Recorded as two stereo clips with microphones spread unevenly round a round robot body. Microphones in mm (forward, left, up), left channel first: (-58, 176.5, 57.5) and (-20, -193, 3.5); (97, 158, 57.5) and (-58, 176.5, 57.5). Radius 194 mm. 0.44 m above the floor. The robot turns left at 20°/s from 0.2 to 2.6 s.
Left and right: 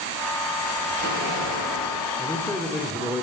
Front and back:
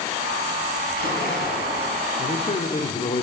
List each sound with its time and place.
0.8 s a splash: 15° right, 3.5 m; by 2.1 s 35° right, 3.5 m
2.2 s a man speaking: 10° left, 1.1 m; by 3.2 s straight ahead, 1.1 m